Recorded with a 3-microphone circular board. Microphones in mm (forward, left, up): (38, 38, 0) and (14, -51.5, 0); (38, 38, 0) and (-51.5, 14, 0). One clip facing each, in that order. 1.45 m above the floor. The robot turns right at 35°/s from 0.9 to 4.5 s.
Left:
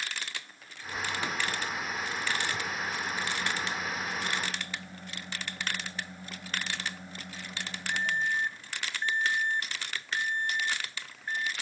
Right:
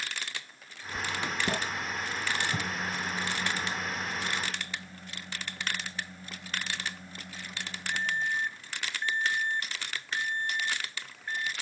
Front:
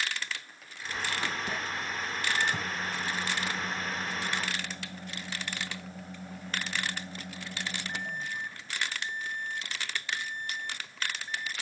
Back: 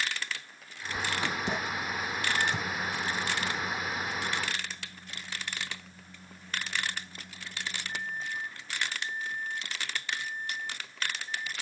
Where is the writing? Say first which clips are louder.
Even, back 1 dB; 120° right; by 1.6 s 95° right.